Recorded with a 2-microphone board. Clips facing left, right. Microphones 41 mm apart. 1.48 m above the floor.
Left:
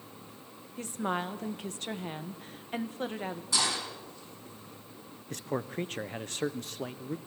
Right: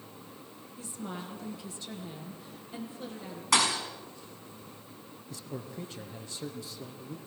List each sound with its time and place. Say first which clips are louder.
0.8 s a woman speaking: left 8 dB; 55° left (ahead or behind), 1.6 m
3.5 s a thud: right 5 dB; 80° right, 5.5 m
5.3 s a man speaking: left 7 dB; 60° left (ahead or behind), 0.9 m